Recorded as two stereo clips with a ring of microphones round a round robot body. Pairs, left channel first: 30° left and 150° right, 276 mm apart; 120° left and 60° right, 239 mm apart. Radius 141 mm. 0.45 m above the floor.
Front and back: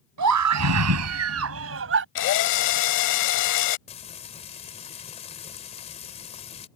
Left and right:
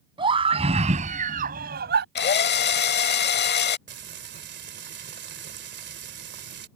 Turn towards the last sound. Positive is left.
turn(degrees=-35)